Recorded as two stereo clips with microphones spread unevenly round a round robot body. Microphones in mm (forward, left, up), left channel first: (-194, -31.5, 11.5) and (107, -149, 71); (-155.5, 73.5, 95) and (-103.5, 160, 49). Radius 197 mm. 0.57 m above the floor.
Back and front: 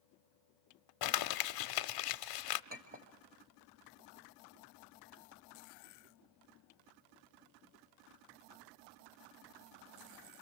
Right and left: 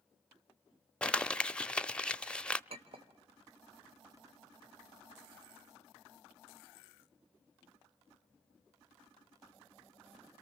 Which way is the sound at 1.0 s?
150° left.